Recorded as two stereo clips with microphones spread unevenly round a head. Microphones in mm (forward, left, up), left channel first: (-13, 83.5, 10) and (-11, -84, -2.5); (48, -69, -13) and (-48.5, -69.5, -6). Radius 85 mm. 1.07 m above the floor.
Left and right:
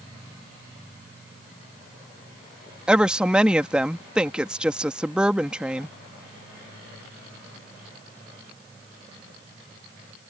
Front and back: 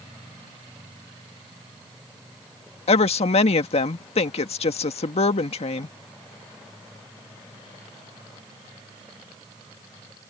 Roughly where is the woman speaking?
Ahead.